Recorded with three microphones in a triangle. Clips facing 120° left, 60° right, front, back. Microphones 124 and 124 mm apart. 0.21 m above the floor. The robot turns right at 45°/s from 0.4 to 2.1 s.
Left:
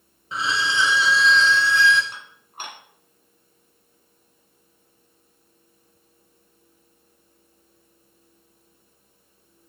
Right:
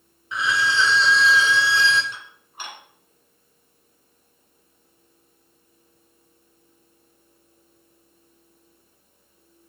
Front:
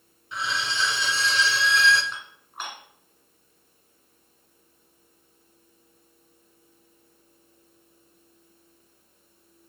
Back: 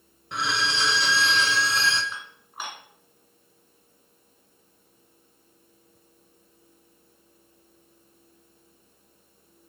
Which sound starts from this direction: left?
Dishes clattering, at 2.1 s.